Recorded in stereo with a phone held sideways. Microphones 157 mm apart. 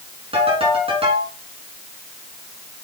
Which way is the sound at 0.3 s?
35° right (ahead or behind).